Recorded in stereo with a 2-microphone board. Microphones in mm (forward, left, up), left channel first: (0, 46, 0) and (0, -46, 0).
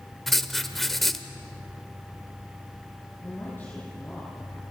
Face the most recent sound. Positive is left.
turn(degrees=25)  # may be behind; listen again after turning